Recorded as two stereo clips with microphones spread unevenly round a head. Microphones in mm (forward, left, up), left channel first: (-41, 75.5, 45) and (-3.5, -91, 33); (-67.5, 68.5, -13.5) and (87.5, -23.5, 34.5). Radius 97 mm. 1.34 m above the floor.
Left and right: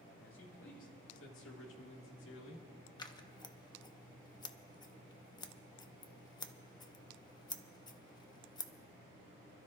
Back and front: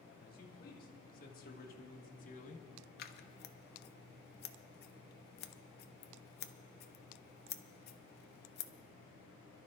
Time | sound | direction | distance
0.2 | a man speaking | 110° left | 3 m
3.0 | scissors | 170° left | 0.7 m